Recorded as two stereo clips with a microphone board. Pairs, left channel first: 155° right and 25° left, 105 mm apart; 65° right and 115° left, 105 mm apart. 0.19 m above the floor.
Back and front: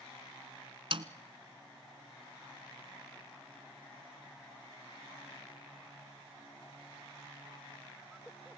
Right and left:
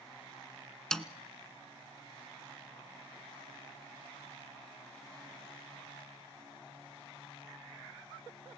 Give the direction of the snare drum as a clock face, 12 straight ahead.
11 o'clock.